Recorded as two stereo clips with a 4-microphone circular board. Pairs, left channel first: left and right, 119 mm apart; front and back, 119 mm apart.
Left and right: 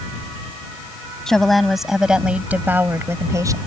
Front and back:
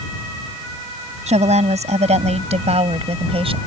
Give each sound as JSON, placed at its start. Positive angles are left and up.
{"t": 1.3, "sound": "a woman speaking", "azimuth_deg": 175}